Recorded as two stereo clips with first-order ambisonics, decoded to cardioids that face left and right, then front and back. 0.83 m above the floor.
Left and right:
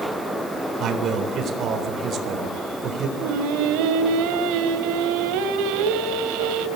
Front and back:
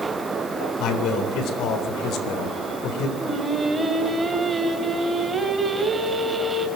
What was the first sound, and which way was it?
A man speaking, 35° right.